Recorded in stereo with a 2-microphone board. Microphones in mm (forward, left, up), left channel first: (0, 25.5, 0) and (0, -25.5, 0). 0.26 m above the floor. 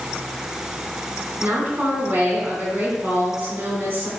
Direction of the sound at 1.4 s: 40° right (ahead or behind).